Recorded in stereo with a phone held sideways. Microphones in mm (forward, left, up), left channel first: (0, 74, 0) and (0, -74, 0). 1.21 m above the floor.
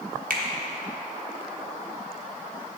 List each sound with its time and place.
0.3 s a finger snap: 70° right (ahead or behind), 1.0 m